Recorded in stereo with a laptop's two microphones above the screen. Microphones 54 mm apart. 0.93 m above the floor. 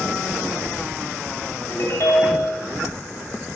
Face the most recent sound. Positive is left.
turn(degrees=55)  # may be behind; listen again after turning